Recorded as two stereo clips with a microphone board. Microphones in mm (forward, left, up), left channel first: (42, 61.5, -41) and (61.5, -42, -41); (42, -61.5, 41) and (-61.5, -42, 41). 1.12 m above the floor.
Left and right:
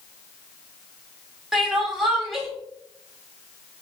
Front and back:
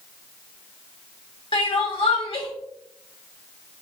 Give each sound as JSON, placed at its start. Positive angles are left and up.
{"t": 1.5, "sound": "crying", "azimuth_deg": 10, "distance_m": 1.3}